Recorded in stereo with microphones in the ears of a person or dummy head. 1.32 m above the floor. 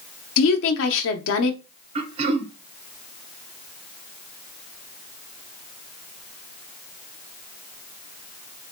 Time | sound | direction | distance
0.4 | a woman speaking | 70° left (ahead or behind) | 0.8 m
1.9 | throat clearing | 30° right (ahead or behind) | 0.5 m